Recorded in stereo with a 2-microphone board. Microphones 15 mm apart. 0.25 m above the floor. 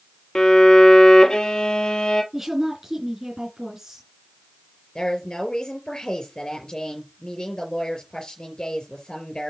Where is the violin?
50° left (ahead or behind), 1.1 m.